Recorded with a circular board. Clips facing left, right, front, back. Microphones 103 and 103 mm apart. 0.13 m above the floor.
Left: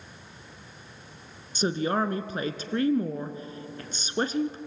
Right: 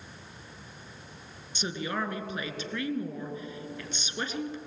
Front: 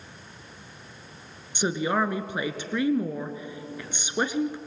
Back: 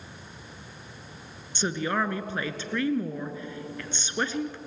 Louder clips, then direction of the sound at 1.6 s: Left 7 dB, front 3 dB; 70° left.